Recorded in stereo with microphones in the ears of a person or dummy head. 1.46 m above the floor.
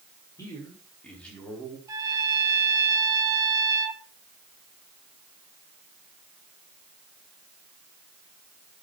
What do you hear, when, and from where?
0.4 s a man speaking: 15° left (ahead or behind), 6 m; by 1.8 s centre (ahead or behind), 4.5 m
1.9 s a trumpet: 20° right (ahead or behind), 2.0 m